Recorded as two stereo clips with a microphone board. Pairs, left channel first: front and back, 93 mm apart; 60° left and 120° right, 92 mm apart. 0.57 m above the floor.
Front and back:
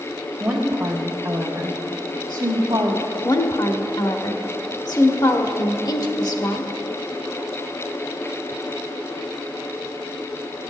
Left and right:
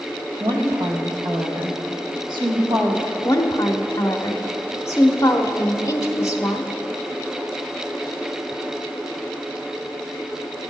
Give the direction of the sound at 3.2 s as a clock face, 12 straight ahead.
11 o'clock.